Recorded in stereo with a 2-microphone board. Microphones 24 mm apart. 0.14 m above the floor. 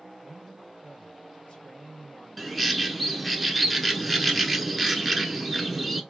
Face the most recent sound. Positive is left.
turn(degrees=0)  # may be behind; listen again after turning